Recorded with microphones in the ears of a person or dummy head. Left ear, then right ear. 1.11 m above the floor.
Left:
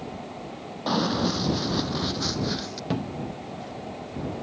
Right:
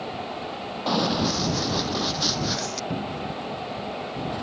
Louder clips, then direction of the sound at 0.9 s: Right 1 dB; 10° right (ahead or behind).